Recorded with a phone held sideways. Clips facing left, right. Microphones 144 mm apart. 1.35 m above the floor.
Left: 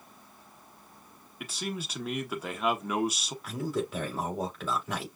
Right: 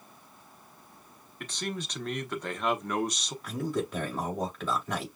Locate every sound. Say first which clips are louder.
1.4 s a man speaking: even; 5° left (ahead or behind), 0.9 m
3.4 s a man speaking: right 1 dB; 5° left (ahead or behind), 3 m